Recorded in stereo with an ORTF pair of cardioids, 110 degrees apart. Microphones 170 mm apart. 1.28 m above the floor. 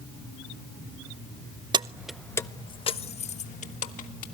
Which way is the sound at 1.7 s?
30° right.